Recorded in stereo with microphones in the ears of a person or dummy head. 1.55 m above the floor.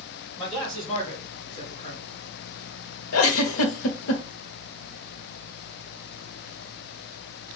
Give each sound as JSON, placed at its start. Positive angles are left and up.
{"t": 0.4, "sound": "a man speaking", "side_deg": 0, "distance_m": 2.5}
{"t": 3.1, "sound": "a giggle", "side_deg": 85, "distance_m": 0.7}